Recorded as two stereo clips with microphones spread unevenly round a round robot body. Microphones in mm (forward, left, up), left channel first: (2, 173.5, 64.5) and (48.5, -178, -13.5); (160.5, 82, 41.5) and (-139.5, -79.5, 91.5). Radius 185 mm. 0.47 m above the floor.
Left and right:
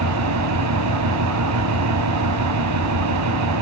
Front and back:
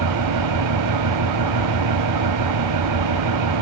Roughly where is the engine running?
Behind right.